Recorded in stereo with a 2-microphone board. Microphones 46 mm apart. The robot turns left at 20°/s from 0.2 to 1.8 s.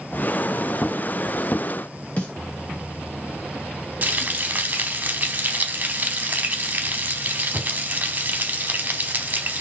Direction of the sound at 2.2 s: 30° left (ahead or behind).